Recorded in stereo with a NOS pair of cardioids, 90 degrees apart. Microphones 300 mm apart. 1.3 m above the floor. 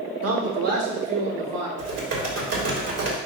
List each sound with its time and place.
0.2 s a man speaking: 50° right, 2 m; by 1.7 s 65° right, 3 m
1.8 s typing on a keyboard: 55° right, 3 m